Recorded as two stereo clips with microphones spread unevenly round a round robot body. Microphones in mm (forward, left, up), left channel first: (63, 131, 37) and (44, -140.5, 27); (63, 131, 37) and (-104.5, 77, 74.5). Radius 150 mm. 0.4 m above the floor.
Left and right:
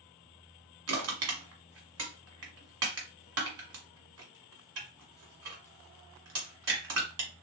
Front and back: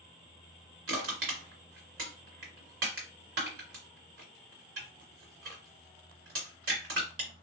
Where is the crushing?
135° right, 1.3 m.